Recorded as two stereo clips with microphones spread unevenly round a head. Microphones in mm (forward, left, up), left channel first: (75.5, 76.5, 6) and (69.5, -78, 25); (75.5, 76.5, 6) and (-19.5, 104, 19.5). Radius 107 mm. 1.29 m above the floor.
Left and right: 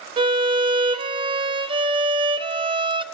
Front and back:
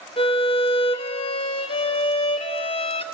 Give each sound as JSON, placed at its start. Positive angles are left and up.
{"t": 0.2, "sound": "a violin", "azimuth_deg": -50, "distance_m": 0.7}